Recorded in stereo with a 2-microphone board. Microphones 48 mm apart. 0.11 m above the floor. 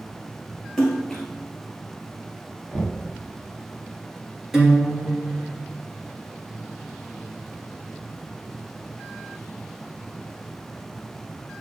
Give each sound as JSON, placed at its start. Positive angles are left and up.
{"t": 0.8, "sound": "a splash", "side_deg": 10, "distance_m": 1.2}
{"t": 2.7, "sound": "knocking", "side_deg": -10, "distance_m": 1.6}
{"t": 4.5, "sound": "a guitar", "side_deg": -15, "distance_m": 2.5}